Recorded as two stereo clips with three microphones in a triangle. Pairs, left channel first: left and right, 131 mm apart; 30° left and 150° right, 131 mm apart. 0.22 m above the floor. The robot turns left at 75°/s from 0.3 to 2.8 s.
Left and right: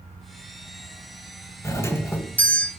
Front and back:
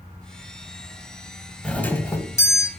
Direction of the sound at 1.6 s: 95° left.